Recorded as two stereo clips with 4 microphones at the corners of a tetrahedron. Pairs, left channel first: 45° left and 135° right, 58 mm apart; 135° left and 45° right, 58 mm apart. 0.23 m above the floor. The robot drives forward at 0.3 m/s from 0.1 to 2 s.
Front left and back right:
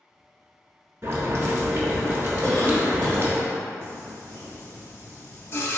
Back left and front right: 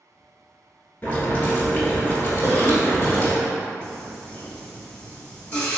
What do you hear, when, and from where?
1.0 s boiling: 175° right, 1.1 m; by 3.4 s straight behind, 1.3 m
2.4 s a cough: 110° left, 1.9 m
3.8 s singing: 75° left, 0.7 m